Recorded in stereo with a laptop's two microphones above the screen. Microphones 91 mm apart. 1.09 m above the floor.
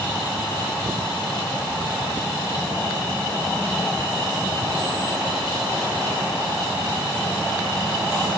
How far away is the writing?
No writing in this recording.